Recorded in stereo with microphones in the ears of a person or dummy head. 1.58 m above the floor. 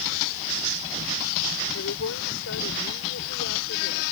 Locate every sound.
1.7 s a woman speaking: 85° left; by 4.0 s 70° left (ahead or behind)